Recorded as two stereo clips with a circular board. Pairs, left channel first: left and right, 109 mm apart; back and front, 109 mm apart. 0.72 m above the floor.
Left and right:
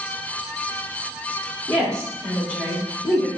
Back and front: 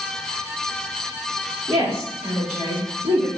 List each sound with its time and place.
1.7 s a woman speaking: 10° left, 1.5 m; by 3.3 s 5° left, 3 m